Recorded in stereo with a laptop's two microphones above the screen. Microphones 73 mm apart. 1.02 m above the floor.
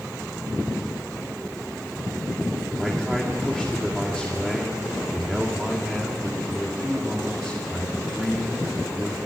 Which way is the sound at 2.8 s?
10° left (ahead or behind).